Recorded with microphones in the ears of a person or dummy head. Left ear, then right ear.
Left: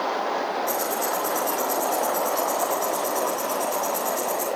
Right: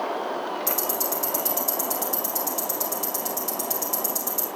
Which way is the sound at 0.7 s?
55° right (ahead or behind).